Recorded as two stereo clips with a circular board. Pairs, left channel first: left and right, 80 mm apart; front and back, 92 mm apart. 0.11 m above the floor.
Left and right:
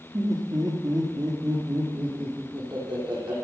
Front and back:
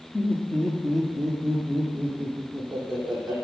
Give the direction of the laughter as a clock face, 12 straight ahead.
3 o'clock.